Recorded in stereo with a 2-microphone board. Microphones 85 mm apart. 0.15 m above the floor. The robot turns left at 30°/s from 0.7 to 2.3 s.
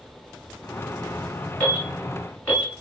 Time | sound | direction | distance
1.6 | an alarm | 15° left (ahead or behind) | 1.7 m